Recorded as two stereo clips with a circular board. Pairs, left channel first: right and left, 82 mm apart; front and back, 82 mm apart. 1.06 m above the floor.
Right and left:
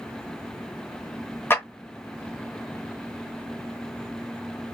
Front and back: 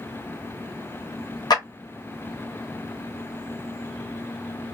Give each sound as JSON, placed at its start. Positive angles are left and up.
{"t": 1.5, "sound": "a clap", "azimuth_deg": -30, "distance_m": 1.0}